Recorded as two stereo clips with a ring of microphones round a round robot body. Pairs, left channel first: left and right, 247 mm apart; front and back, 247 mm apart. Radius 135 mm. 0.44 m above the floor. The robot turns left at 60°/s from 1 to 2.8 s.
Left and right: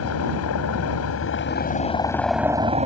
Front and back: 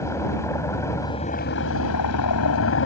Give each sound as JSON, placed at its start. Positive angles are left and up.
{"t": 0.0, "sound": "a helicopter", "azimuth_deg": 80}